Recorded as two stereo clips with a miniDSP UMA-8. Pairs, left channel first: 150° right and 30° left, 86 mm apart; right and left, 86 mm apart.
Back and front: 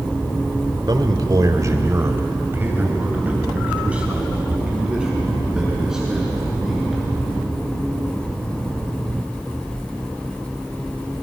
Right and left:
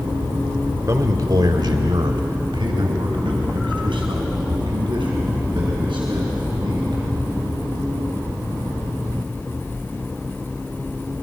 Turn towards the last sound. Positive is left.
turn(degrees=115)